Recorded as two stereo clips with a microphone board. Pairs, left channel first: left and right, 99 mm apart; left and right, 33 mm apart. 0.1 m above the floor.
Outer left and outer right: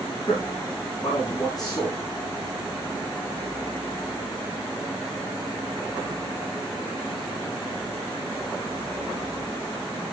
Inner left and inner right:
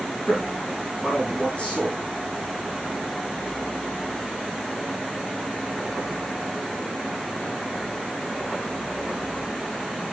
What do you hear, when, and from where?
0.3 s a man speaking: 40° left (ahead or behind), 7 m